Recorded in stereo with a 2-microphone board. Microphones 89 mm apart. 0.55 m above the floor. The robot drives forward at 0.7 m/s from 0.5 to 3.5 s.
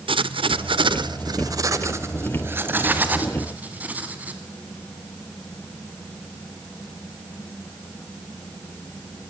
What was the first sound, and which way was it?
Writing, 75° right (ahead or behind).